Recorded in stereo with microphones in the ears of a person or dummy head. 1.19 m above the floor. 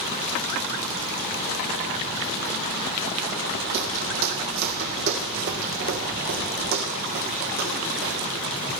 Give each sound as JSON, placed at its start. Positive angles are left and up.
{"t": 3.7, "sound": "footsteps", "side_deg": -60, "distance_m": 3.5}